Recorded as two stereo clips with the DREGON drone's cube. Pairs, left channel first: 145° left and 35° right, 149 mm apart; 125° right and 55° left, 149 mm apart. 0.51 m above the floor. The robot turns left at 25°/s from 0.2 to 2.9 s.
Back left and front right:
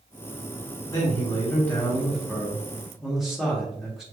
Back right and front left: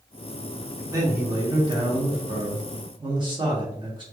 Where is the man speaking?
100° left, 1.5 m; by 4.0 s 50° left, 1.5 m.